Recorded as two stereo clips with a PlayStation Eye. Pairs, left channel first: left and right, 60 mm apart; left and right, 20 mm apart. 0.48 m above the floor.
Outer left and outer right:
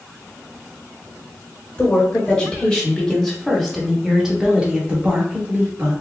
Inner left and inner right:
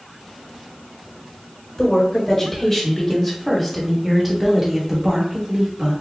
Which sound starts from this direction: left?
A woman speaking, at 1.8 s.